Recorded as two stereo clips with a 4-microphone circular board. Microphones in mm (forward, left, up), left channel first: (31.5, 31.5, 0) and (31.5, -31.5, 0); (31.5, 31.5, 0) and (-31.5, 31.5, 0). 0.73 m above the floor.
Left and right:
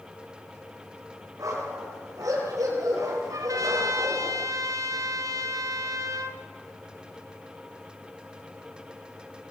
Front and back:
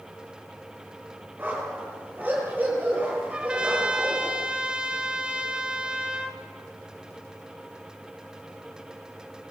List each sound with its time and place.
1.4 s a dog barking: 120° right, 9 m; by 4.3 s 110° right, 7.5 m
3.3 s a trumpet: 105° right, 2 m